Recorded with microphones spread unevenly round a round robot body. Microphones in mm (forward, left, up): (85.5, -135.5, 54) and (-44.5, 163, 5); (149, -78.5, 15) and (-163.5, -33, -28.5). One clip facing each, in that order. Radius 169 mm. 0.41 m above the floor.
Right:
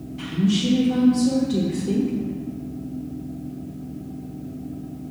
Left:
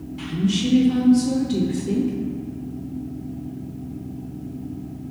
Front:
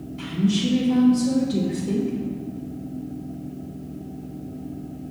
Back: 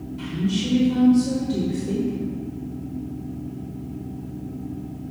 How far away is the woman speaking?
About 0.9 m.